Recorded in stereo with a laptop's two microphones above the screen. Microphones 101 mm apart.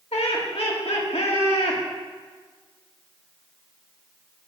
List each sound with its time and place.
0.1 s laughter: 80° left, 1.7 m